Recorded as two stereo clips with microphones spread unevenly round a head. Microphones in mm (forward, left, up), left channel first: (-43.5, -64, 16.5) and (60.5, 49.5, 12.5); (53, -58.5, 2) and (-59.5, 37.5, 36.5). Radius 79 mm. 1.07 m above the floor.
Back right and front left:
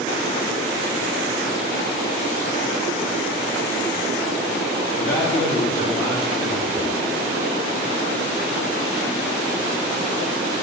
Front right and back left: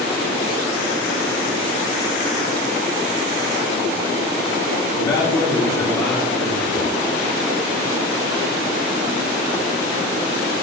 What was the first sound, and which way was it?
A man speaking, 105° right.